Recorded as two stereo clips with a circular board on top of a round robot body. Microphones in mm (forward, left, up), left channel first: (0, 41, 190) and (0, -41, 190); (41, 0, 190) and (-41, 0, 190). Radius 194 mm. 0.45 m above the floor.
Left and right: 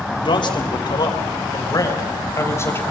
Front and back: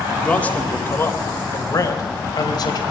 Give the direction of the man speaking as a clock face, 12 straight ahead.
9 o'clock.